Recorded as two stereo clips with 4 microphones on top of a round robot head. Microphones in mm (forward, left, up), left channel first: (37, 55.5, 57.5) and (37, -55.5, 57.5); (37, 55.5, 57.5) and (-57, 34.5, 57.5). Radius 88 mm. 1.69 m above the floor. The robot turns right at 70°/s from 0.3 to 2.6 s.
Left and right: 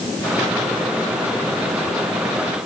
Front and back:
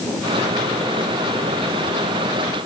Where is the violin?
I don't hear a violin.